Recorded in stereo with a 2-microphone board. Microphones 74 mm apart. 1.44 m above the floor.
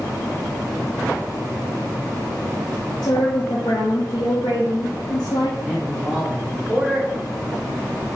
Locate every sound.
3.0 s a woman speaking: 70° left (ahead or behind), 0.7 m
5.6 s a man speaking: 10° right (ahead or behind), 1.4 m